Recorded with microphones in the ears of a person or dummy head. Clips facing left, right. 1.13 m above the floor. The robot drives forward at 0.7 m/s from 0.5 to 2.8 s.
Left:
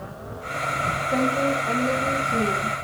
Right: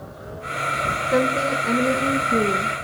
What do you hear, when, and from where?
1.1 s a woman speaking: 60° right (ahead or behind), 0.8 m; by 2.8 s 30° right (ahead or behind), 1.2 m